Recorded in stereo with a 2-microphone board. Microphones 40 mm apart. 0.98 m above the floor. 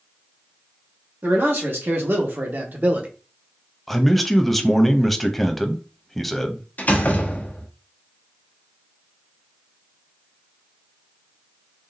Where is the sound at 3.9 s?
5° left (ahead or behind), 0.7 m.